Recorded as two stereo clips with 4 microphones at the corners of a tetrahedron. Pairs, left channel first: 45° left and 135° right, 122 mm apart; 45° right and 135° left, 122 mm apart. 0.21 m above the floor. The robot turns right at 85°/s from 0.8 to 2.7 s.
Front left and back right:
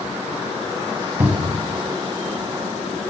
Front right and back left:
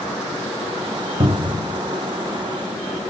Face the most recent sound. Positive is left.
turn(degrees=-80)